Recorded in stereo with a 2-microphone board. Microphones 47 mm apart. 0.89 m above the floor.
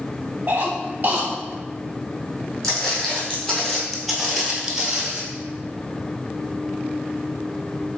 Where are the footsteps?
10° left (ahead or behind), 2.0 m; by 5.2 s 15° right (ahead or behind), 1.1 m.